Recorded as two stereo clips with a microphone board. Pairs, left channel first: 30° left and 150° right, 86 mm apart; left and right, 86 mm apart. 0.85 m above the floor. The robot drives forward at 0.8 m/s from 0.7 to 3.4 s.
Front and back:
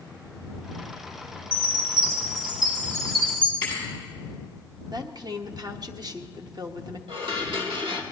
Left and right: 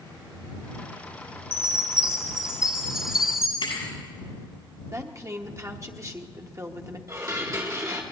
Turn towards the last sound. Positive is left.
turn(degrees=-140)